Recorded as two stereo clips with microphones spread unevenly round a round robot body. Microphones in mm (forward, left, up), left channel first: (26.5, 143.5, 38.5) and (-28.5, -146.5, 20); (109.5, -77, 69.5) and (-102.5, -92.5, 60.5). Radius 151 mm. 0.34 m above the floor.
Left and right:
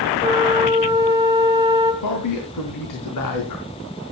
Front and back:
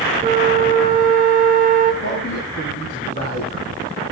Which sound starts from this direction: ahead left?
A man speaking, at 2.0 s.